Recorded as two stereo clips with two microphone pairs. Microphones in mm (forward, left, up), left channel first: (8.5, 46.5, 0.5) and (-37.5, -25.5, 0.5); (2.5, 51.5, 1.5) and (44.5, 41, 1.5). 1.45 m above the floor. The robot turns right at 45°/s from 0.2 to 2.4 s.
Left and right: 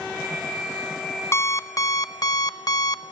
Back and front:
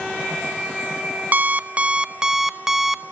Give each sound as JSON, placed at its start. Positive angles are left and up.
{"t": 1.3, "sound": "an alarm clock", "azimuth_deg": 15, "distance_m": 0.7}